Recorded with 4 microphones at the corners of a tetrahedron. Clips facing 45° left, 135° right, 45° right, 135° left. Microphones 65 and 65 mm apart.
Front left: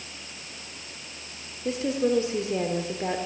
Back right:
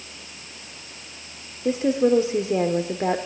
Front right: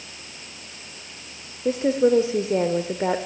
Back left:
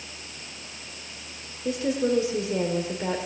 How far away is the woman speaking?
About 1.3 m.